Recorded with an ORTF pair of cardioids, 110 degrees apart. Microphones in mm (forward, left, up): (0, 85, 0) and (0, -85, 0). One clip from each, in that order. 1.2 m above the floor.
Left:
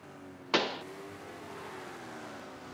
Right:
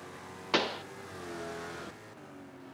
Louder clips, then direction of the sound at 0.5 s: Even; straight ahead.